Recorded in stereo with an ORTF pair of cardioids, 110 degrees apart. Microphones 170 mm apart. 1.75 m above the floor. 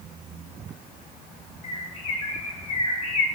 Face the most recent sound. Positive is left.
turn(degrees=45)